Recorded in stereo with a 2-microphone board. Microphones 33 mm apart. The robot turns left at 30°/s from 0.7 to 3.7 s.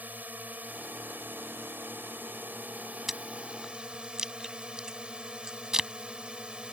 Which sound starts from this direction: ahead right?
A drone, at 0.0 s.